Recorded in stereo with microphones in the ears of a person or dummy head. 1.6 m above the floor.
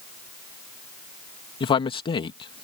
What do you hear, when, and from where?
1.6 s a man speaking: 30° left (ahead or behind)